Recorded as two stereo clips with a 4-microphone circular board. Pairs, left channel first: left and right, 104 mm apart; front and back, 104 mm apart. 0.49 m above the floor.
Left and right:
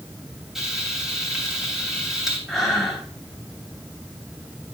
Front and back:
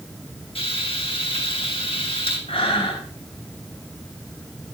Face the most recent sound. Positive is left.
turn(degrees=5)